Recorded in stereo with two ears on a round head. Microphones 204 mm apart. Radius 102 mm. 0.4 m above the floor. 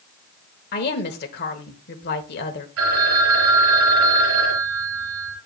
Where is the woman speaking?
45° left (ahead or behind), 1.2 m.